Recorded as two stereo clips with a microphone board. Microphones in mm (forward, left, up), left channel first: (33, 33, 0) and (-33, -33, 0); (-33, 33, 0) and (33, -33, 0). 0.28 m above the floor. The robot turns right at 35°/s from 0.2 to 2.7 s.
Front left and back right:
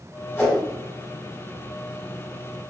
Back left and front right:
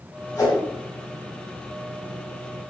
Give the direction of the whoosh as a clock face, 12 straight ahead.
9 o'clock.